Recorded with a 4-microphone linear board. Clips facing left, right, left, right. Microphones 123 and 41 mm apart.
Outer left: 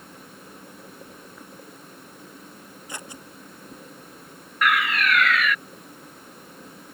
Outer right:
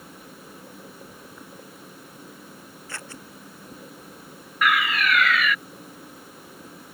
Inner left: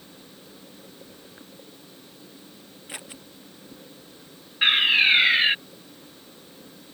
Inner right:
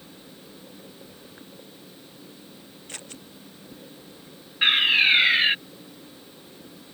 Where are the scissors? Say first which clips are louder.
Outer left 1 dB, inner left 2 dB; 15° left (ahead or behind).